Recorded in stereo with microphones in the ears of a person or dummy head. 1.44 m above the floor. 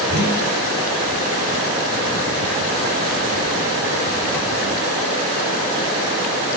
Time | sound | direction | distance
0.1 | a whoosh | 55° left (ahead or behind) | 3.5 m